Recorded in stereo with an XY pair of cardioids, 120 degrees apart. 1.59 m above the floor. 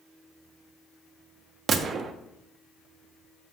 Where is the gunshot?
45° right, 0.6 m.